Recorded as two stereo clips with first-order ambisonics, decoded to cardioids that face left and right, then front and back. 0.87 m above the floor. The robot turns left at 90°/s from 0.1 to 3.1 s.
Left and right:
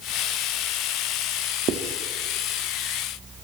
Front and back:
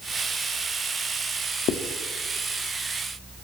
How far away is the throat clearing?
I don't hear throat clearing.